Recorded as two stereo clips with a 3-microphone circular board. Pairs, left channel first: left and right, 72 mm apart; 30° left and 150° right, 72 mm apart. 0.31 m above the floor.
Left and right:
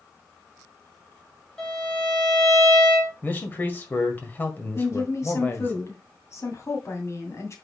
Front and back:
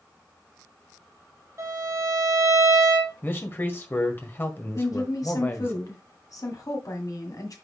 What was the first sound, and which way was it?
A violin, 170° left.